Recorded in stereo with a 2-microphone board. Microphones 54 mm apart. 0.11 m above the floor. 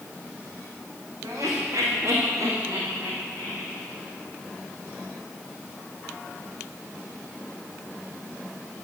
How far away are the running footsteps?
No running footsteps in this recording.